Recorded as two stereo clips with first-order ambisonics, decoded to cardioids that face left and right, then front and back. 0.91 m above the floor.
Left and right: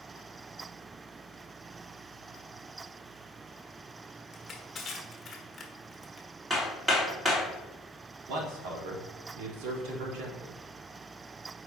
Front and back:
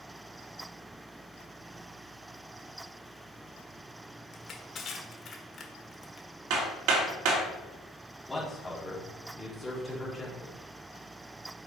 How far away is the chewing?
No chewing in this recording.